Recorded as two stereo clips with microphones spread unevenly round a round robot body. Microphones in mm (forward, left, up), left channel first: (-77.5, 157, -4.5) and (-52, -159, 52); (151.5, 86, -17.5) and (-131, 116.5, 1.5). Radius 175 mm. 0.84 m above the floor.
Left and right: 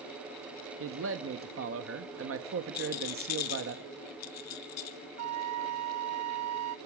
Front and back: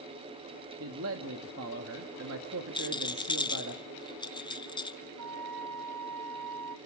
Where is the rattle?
65° left, 1.4 m.